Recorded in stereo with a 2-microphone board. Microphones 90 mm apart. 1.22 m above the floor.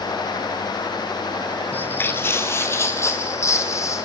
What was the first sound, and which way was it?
Footsteps, 20° left (ahead or behind).